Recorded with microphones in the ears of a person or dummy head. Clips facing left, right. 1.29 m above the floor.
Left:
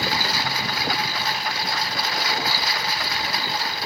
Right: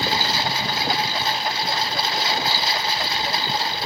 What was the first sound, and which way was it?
A lawn mower, 25° right (ahead or behind).